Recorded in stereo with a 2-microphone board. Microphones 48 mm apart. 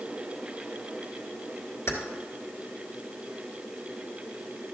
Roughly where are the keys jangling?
Left.